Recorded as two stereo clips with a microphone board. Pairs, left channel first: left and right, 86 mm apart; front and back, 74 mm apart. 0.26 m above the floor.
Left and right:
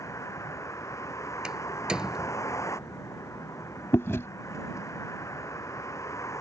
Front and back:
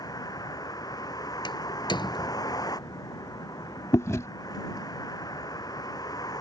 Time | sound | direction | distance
0.0 | a vehicle | 35° left | ?
1.4 | a door slam | 10° right | ?
3.9 | chewing | 35° left | ?